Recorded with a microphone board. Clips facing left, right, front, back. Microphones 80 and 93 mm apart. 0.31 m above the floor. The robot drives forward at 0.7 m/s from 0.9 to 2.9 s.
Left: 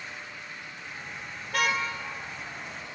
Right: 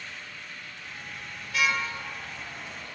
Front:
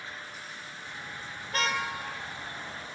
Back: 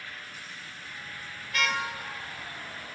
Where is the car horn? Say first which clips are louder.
Even, even; 50° left, 3 m; by 1.8 s 55° left, 3 m.